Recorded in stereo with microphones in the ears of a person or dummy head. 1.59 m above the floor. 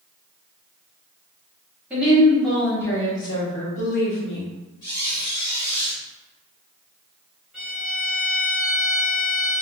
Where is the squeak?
15° left (ahead or behind), 0.7 m.